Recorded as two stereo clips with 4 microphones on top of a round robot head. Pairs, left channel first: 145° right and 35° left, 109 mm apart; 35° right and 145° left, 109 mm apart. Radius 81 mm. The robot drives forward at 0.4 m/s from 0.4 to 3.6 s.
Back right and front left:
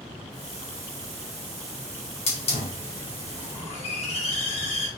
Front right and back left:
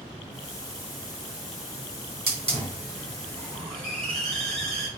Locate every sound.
2.3 s a hiss: 175° right, 3.5 m; by 4.9 s straight behind, 4 m